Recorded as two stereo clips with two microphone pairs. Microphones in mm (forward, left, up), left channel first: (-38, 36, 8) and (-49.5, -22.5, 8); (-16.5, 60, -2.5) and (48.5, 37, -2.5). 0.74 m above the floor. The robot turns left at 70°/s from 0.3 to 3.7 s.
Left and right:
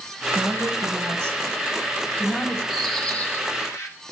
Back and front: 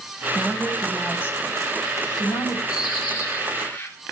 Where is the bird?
175° left, 2 m; by 3.9 s 105° left, 2 m.